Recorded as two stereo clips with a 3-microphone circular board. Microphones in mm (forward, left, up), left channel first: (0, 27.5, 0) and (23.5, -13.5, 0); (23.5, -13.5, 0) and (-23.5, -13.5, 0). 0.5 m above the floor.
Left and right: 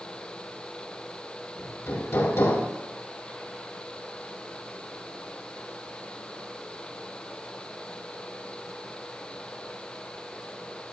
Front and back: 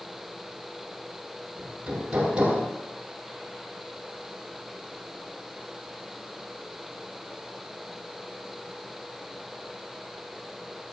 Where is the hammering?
115° left, 7 m.